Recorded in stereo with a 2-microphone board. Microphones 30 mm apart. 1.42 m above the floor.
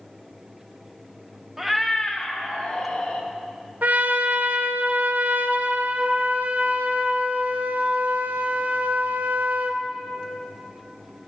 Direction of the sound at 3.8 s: 70° right (ahead or behind).